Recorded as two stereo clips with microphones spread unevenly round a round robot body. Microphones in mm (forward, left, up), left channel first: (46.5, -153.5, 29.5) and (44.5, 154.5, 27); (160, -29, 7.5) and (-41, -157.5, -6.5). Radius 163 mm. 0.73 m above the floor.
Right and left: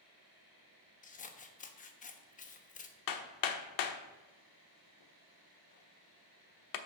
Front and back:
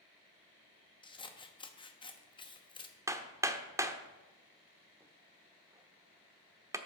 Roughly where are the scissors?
Ahead right.